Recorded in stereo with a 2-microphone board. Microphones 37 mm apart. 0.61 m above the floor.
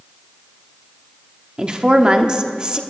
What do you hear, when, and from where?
1.6 s a woman speaking: 25° right (ahead or behind), 1.1 m